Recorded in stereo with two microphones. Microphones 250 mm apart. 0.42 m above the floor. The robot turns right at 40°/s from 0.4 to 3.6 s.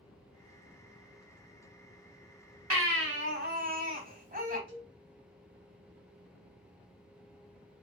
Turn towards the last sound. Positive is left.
turn(degrees=-50)  # may be behind; listen again after turning